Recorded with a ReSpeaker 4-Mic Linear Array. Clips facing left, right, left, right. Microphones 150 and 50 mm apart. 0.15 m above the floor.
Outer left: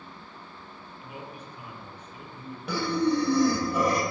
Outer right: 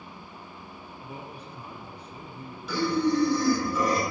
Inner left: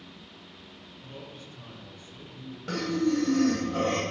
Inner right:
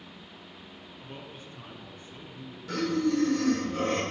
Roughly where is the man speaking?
Right.